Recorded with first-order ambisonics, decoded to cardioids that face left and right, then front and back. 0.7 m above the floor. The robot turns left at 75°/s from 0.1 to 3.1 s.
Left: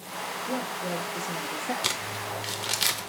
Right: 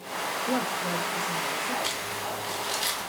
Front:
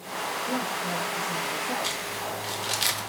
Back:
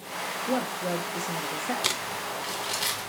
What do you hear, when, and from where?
0.5 s a woman speaking: 135° right, 0.5 m; by 1.7 s 130° left, 0.5 m
1.8 s crumpling: 135° left, 0.7 m; by 3.1 s 40° left, 0.7 m